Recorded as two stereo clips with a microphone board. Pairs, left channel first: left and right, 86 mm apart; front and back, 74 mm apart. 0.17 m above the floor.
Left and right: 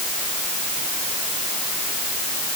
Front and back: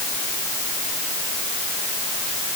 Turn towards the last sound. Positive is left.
No sound to turn to.